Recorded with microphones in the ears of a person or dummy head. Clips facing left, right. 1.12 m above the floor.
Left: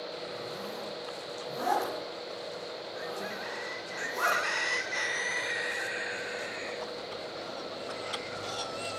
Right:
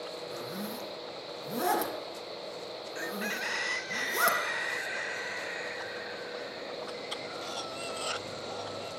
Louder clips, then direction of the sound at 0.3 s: Even; 70° right (ahead or behind).